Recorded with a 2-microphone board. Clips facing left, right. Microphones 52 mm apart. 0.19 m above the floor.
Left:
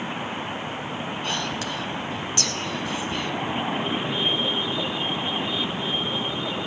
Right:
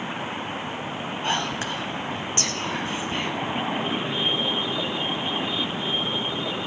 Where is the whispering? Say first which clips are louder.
Right 4 dB; 30° right (ahead or behind), 1.1 m.